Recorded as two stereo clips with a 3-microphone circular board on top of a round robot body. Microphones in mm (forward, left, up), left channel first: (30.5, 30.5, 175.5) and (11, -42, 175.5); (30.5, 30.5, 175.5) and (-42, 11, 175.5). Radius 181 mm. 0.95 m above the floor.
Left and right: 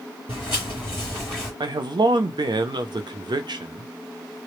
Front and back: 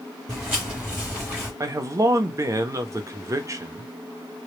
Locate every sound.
0.3 s footsteps: 85° left, 1.1 m; by 1.5 s 155° left, 1.0 m
1.6 s a man speaking: 120° right, 0.6 m